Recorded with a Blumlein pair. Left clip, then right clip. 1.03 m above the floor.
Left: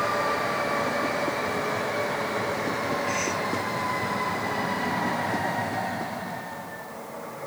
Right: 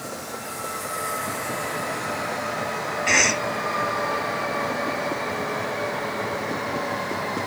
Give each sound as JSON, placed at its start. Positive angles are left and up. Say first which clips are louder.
{"t": 3.1, "sound": "a cough", "louder": "right 8 dB", "azimuth_deg": -45, "distance_m": 0.8}